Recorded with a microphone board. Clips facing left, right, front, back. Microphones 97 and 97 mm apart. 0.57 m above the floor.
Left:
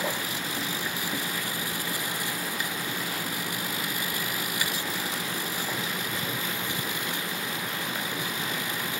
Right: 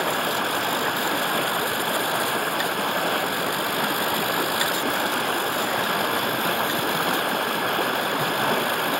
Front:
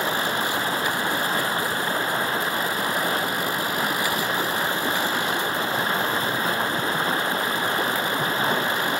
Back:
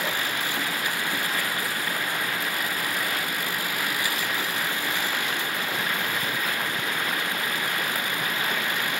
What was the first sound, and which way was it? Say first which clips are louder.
Running water: right 8 dB, front 5 dB; 60° right.